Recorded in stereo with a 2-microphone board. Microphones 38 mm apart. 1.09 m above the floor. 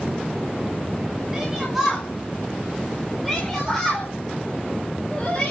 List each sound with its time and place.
1.3 s a shout: 10° right (ahead or behind), 5 m; by 5.5 s 15° left (ahead or behind), 4.5 m